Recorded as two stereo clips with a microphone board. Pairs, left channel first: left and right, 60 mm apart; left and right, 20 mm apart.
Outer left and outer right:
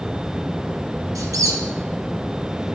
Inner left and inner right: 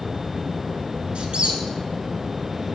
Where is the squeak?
75° right (ahead or behind), 0.9 m.